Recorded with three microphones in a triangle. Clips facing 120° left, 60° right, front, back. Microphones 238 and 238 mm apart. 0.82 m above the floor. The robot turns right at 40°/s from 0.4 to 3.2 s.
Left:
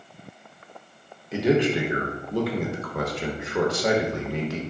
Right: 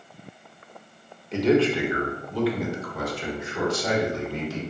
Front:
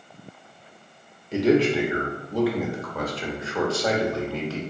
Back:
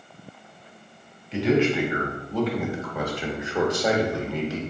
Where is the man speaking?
35° left, 0.7 m; by 4.6 s 110° left, 0.7 m.